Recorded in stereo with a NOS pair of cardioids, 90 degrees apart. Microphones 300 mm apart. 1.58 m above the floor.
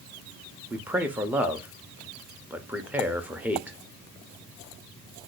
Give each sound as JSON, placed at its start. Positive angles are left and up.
{"t": 0.7, "sound": "a man speaking", "azimuth_deg": -5, "distance_m": 0.7}